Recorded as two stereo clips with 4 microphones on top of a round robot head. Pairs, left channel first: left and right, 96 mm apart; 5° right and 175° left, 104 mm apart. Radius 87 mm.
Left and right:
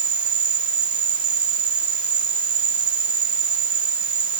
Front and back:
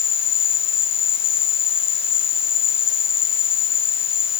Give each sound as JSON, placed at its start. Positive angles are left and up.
{"t": 0.0, "sound": "an insect", "azimuth_deg": -45}